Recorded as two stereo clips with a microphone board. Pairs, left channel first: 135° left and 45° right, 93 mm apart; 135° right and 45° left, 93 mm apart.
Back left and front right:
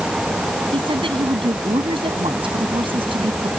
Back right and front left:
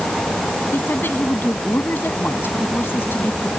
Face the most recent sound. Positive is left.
turn(degrees=-65)